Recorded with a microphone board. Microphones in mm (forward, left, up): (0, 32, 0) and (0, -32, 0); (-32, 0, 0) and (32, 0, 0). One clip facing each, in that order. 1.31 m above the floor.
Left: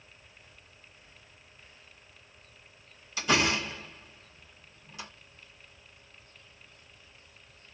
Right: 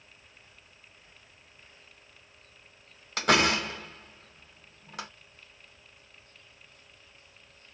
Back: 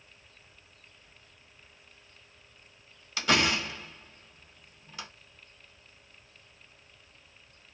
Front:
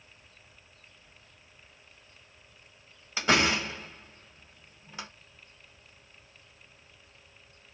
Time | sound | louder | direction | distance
3.2 | a door slam | right 3 dB, front 1 dB | 65° right | 1.1 m